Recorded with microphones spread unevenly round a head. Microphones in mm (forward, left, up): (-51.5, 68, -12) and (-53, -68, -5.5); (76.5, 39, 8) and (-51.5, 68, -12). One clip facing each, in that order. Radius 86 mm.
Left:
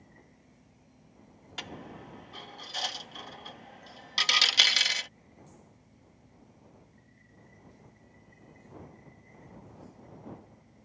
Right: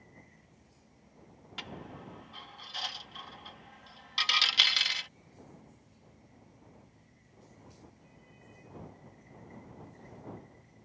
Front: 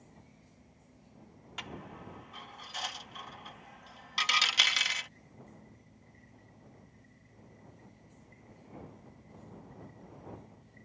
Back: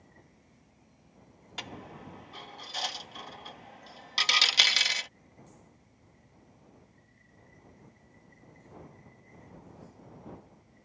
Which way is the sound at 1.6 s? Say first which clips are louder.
Left 2 dB, back 2 dB; 115° left.